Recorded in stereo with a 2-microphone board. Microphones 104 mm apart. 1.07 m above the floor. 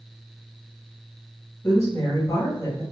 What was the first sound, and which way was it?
A woman speaking, 30° left (ahead or behind).